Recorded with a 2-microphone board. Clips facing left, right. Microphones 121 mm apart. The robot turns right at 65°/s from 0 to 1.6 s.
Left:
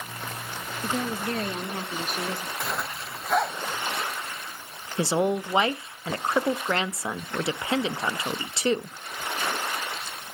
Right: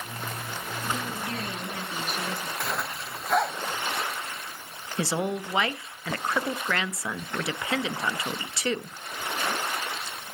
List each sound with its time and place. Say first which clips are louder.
0.8 s a woman speaking: left 5 dB; 80° left, 1.2 m; by 2.5 s 130° left, 1.2 m
2.6 s a zipper: even; 5° left (ahead or behind), 0.9 m
5.0 s a woman speaking: left 4 dB; 25° left (ahead or behind), 0.6 m